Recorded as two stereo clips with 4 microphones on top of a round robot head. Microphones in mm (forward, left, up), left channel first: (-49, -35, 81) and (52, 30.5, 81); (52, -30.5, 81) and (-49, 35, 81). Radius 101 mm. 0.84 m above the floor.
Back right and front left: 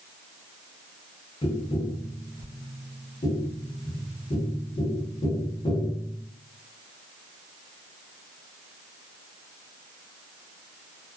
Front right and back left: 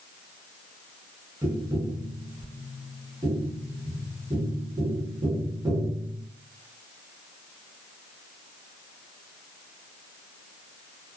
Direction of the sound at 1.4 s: 165° right.